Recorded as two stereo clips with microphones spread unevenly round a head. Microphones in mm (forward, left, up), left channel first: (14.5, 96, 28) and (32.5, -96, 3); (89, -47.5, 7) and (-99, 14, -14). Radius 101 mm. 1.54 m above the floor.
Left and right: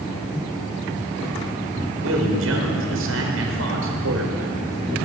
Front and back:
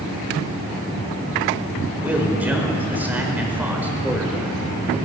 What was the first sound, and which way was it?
A man speaking, 115° right.